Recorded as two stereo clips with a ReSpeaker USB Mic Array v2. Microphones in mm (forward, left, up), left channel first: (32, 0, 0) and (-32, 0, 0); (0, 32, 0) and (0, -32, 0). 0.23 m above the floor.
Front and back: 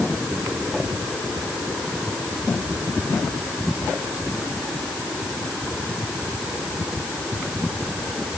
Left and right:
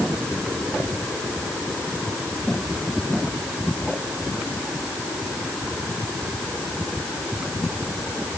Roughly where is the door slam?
I don't hear a door slam.